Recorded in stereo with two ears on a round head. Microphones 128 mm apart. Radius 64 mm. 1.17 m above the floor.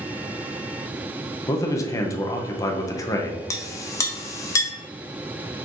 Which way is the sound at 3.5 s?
25° left (ahead or behind).